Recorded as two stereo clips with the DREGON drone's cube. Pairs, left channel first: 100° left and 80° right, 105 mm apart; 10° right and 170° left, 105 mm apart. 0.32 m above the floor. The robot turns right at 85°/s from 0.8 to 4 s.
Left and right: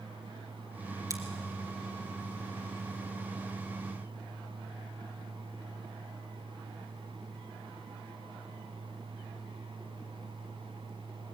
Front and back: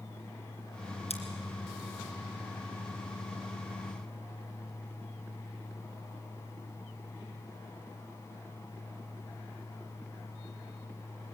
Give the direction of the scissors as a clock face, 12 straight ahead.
1 o'clock.